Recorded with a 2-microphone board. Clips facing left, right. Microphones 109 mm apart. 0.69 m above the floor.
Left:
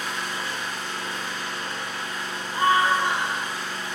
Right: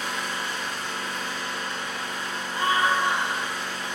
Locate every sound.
0.0 s an engine running: 55° right (ahead or behind), 1.2 m
2.5 s a scream: 25° left (ahead or behind), 1.7 m